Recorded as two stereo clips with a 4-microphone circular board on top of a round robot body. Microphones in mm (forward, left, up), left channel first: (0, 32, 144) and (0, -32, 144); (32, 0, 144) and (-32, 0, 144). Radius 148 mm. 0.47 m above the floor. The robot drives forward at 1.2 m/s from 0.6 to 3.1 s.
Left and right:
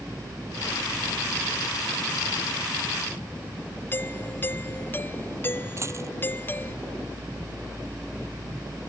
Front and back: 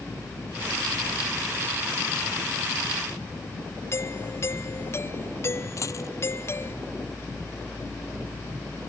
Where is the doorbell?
40° left.